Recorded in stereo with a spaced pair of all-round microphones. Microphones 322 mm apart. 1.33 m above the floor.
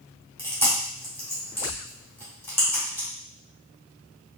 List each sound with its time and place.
0.4 s chewing: 5° left (ahead or behind), 1.9 m